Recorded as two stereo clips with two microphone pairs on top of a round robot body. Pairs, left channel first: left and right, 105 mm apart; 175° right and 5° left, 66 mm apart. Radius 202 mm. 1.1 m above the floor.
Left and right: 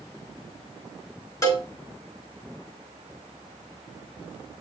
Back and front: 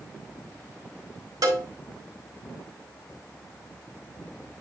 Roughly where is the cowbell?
Ahead left.